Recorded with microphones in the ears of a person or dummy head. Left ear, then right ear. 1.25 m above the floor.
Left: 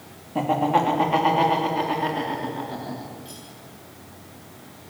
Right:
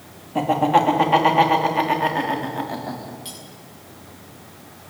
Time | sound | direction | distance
0.3 | laughter | 10° right (ahead or behind) | 3 m
3.2 | cutlery clinking | 45° right (ahead or behind) | 7 m